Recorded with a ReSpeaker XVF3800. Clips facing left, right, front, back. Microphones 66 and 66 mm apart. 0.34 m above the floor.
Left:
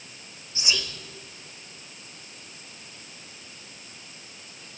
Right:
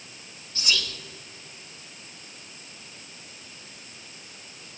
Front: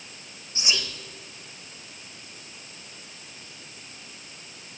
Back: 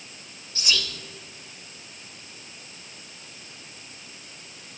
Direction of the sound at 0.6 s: 40° left.